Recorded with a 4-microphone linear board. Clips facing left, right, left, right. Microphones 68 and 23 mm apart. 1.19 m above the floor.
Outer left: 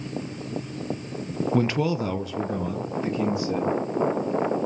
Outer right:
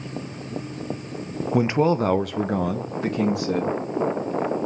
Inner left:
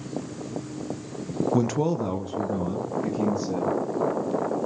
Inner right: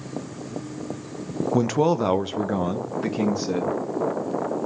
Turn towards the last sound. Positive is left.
turn(degrees=-80)